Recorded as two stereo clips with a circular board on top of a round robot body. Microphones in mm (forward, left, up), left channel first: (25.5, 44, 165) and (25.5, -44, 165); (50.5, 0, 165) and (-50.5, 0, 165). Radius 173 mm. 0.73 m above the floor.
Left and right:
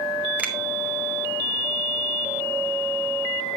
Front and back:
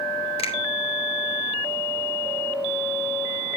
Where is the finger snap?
15° right, 3 m.